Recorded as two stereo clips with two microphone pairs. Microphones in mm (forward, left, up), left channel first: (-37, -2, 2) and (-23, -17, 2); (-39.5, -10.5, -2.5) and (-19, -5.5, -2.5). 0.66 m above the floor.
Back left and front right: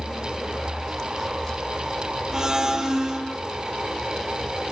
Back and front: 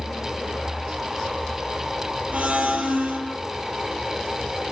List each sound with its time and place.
2.3 s a blender: 15° left, 7 m